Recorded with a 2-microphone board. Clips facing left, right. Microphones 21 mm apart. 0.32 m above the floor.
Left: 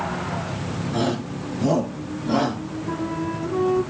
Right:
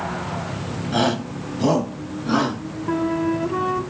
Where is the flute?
25° right (ahead or behind), 0.6 m.